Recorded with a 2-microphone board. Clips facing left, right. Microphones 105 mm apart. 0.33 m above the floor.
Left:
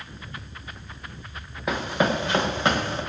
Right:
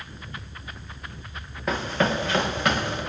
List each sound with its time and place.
1.7 s running footsteps: 5° left (ahead or behind), 1.5 m; by 3.0 s 30° left (ahead or behind), 2.5 m